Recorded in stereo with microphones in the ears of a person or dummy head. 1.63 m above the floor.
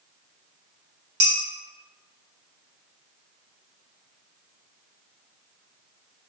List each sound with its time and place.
1.2 s dishes clattering: 70° right (ahead or behind), 2.0 m